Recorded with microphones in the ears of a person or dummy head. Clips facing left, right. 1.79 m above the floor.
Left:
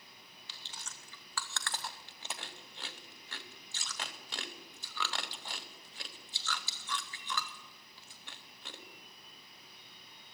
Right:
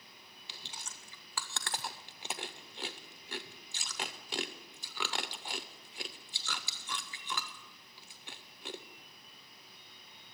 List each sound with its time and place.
0.5 s chewing: 15° right (ahead or behind), 0.7 m